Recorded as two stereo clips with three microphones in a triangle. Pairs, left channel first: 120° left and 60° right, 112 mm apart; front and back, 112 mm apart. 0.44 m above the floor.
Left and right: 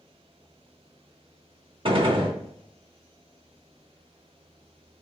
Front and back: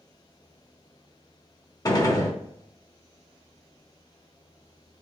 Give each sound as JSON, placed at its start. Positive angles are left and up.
{"t": 1.9, "sound": "a gunshot", "azimuth_deg": -45, "distance_m": 0.8}